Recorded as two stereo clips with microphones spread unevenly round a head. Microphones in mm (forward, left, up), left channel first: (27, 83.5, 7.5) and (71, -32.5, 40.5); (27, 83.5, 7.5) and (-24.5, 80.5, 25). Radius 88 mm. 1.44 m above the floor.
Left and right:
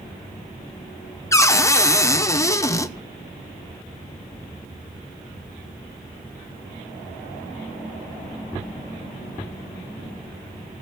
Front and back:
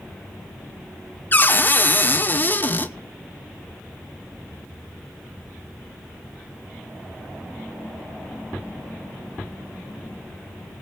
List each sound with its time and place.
1.3 s a cupboard door: 50° left, 1.1 m